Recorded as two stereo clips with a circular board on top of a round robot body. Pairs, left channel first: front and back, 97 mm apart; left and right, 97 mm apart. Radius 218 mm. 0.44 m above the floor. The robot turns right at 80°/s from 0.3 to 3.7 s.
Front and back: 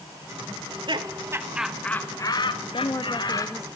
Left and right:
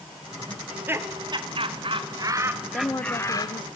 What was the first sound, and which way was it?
Laughter, straight behind.